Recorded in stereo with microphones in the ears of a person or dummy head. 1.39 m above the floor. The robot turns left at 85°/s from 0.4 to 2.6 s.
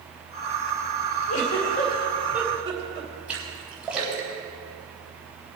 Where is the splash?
10° right (ahead or behind), 3 m.